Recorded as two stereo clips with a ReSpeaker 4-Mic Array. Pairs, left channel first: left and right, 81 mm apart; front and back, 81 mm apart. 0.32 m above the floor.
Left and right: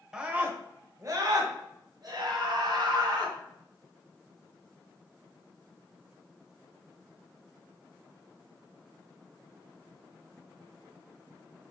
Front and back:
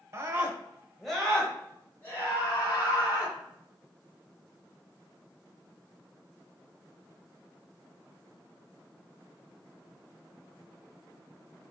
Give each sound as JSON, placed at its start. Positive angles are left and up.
{"t": 0.1, "sound": "a scream", "azimuth_deg": -170, "distance_m": 1.3}